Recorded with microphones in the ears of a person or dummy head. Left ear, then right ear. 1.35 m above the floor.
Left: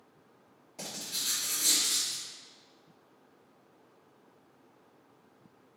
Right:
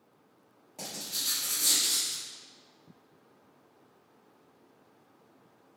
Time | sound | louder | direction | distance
0.8 | writing | right 1 dB | 15° right (ahead or behind) | 1.5 m